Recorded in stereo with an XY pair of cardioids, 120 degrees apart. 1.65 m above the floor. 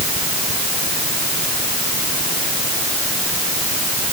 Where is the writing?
No writing in this recording.